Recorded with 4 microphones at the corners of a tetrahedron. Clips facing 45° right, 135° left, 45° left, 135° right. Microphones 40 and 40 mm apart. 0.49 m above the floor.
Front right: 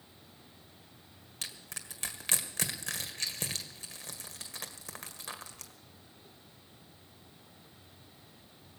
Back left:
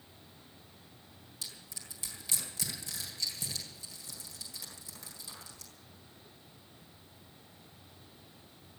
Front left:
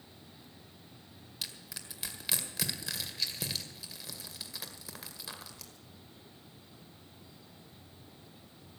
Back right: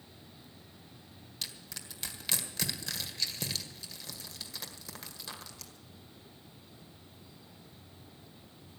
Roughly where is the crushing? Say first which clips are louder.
Front right 4 dB, even; ahead right.